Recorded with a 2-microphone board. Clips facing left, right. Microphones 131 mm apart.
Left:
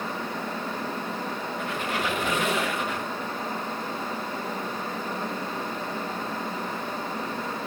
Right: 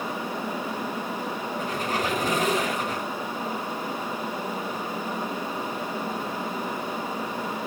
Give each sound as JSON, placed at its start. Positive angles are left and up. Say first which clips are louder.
{"t": 1.6, "sound": "a squeak", "louder": "right 2 dB", "side_deg": -35, "distance_m": 2.5}